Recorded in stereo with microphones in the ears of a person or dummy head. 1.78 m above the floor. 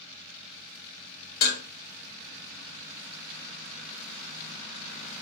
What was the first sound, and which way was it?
Dishes clattering, 50° left (ahead or behind).